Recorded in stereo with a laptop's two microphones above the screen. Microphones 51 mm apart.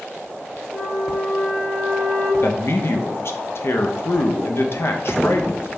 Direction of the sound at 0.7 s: 60° left (ahead or behind).